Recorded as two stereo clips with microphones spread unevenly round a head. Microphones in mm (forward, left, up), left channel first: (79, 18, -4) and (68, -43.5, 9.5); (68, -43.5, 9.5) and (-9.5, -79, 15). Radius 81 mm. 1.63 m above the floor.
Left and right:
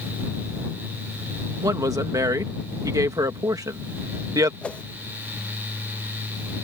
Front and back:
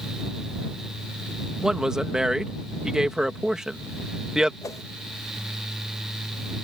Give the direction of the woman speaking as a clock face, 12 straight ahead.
2 o'clock.